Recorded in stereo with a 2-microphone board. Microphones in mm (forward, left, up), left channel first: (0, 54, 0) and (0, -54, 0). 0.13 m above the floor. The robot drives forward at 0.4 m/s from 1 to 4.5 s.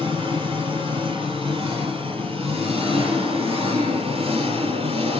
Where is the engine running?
55° right (ahead or behind), 3 m; by 5.2 s 60° right (ahead or behind), 2.5 m.